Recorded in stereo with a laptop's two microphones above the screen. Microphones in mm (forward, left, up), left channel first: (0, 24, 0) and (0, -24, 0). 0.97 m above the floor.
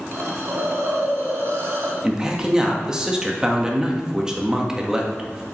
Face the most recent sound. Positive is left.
turn(degrees=-15)  # may be behind; listen again after turning